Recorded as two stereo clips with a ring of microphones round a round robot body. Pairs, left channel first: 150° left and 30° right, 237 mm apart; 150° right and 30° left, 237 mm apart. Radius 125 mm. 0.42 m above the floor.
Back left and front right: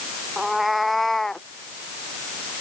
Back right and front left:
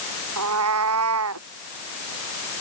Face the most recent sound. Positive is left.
turn(degrees=60)